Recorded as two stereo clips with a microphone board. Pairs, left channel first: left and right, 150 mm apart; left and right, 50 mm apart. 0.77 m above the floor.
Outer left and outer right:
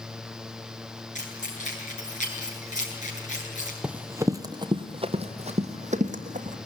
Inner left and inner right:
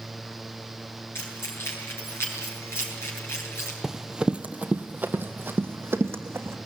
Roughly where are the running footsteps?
Centre.